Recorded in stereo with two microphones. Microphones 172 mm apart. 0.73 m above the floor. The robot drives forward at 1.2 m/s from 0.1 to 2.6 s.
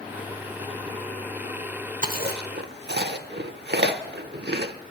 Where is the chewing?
50° right (ahead or behind), 1.0 m; by 4.7 s 80° right, 0.8 m.